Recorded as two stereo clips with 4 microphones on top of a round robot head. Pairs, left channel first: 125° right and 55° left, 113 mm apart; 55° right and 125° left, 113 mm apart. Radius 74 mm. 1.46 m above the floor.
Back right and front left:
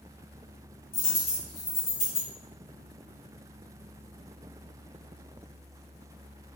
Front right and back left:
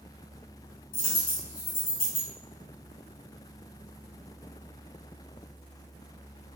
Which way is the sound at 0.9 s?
75° right.